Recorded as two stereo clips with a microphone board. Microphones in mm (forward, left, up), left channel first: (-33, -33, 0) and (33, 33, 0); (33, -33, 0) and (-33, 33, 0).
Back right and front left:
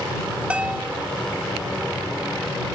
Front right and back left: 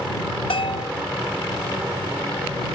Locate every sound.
0.5 s a bell: 30° right